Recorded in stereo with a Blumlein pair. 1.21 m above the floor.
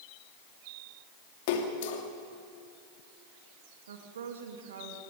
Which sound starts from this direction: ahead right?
A woman speaking, at 3.9 s.